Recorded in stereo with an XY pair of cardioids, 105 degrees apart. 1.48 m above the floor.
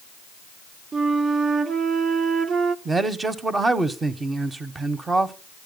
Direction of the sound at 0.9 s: 50° right.